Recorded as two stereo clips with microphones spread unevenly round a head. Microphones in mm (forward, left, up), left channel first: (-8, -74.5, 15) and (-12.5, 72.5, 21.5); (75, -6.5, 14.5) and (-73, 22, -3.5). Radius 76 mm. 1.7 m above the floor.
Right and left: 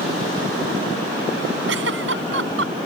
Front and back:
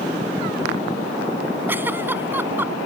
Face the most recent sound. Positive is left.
turn(degrees=90)